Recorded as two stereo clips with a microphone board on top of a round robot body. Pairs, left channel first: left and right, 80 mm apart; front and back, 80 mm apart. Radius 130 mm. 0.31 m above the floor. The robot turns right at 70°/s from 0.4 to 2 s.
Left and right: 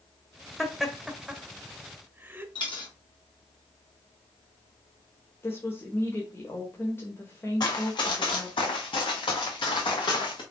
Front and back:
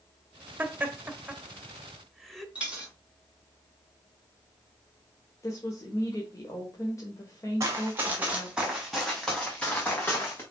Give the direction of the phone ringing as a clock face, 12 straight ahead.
I don't hear a phone ringing.